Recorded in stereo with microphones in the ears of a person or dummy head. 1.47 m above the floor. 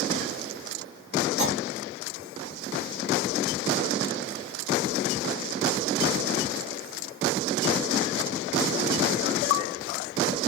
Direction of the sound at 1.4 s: 35° right (ahead or behind).